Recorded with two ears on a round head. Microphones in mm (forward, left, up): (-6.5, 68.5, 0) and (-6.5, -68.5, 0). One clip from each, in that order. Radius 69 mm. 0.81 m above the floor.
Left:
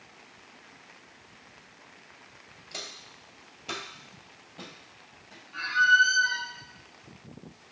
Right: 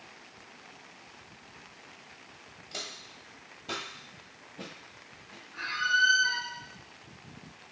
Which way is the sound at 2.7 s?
10° left (ahead or behind).